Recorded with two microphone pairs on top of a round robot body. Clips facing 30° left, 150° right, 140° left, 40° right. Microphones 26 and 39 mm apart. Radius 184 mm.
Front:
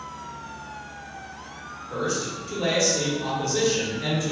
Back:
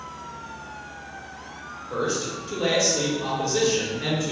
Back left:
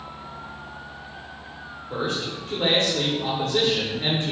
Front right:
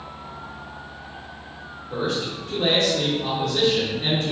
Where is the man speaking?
130° left, 1.3 m.